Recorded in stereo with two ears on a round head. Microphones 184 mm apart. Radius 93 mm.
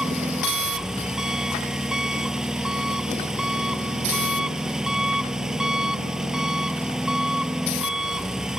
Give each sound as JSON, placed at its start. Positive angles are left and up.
{"t": 0.0, "sound": "an engine running", "side_deg": -5}